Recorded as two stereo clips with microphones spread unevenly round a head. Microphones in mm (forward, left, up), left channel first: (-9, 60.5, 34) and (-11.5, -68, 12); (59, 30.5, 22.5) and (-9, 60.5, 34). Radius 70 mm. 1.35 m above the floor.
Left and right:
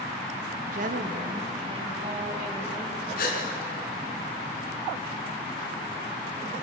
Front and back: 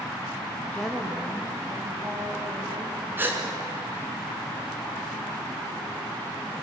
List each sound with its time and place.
0.6 s a woman speaking: 100° right, 2 m; by 3.1 s 160° right, 4.5 m
3.2 s a gasp: 100° left, 3.5 m